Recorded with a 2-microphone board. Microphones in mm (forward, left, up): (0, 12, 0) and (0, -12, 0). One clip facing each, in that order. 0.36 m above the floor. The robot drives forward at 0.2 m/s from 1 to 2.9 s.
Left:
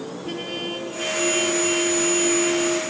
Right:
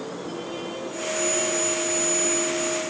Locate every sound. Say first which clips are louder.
0.2 s a trumpet: left 7 dB; 45° left (ahead or behind), 2 m; by 2.8 s 40° left (ahead or behind), 2.5 m